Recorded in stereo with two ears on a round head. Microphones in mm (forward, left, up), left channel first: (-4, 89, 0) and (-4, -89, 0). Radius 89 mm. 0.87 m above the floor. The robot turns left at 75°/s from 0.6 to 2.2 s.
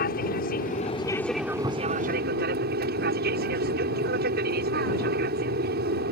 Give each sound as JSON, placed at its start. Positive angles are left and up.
{"t": 0.0, "sound": "an aircraft", "azimuth_deg": 55}